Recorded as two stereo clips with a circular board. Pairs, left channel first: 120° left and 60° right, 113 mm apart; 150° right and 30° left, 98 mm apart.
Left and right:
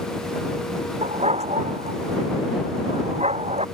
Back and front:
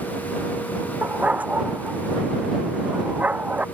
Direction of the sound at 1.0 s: 45° right.